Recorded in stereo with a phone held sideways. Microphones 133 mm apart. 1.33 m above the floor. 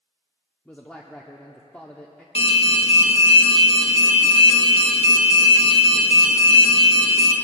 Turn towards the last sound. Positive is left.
turn(degrees=50)  # may be behind; listen again after turning